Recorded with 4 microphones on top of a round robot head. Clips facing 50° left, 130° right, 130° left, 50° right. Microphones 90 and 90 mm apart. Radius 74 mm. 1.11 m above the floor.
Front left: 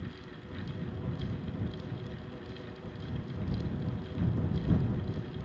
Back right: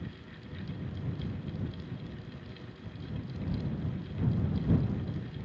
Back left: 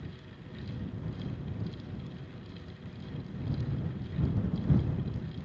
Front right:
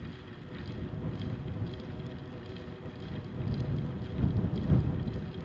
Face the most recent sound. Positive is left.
No sound to turn to.